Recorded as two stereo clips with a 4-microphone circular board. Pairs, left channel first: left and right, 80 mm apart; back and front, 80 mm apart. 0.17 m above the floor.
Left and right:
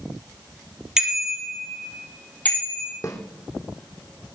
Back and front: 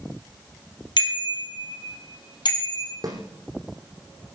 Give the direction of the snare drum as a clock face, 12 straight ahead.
11 o'clock.